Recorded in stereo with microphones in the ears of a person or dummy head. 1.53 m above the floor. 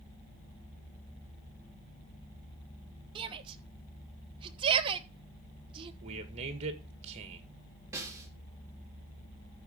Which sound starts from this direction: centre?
A snare drum, at 7.9 s.